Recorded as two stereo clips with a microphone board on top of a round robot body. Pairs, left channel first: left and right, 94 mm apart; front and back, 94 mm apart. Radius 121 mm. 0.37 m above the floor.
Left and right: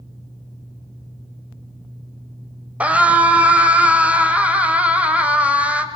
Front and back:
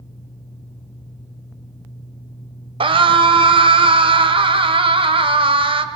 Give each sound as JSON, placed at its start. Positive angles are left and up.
{"t": 2.8, "sound": "a scream", "azimuth_deg": -165, "distance_m": 1.9}